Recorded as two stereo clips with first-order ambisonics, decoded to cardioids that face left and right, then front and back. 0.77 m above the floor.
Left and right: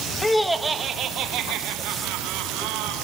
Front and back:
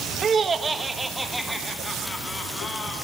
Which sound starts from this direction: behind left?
Laughter, at 0.2 s.